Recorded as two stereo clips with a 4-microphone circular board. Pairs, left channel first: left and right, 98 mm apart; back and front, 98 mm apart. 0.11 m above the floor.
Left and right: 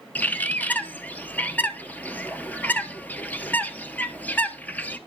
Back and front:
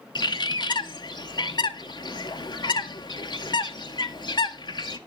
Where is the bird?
160° left, 0.6 m.